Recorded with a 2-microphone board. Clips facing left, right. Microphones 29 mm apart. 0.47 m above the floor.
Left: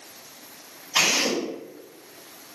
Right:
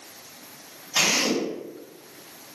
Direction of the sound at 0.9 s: 25° left (ahead or behind).